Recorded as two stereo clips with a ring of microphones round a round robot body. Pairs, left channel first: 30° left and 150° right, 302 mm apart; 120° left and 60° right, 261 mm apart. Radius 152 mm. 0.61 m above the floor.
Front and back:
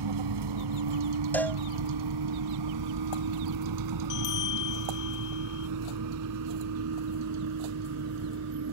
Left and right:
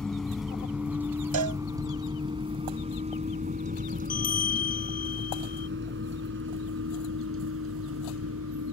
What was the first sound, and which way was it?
A vehicle, 150° right.